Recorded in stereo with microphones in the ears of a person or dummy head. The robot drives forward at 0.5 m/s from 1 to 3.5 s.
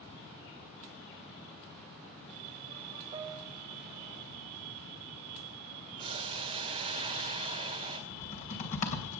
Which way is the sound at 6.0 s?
35° right (ahead or behind).